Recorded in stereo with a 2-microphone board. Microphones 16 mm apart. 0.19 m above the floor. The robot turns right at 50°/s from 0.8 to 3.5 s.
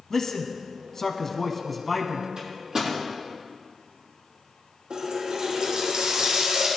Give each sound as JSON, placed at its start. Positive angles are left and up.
{"t": 0.1, "sound": "a man speaking", "side_deg": 30, "distance_m": 1.5}
{"t": 2.4, "sound": "a microwave", "side_deg": -60, "distance_m": 6.0}
{"t": 4.9, "sound": "a running tap", "side_deg": -80, "distance_m": 6.0}